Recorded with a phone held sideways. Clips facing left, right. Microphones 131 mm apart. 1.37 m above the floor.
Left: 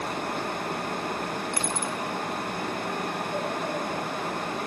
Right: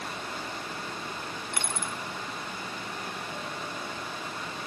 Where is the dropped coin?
35° left (ahead or behind), 0.9 m.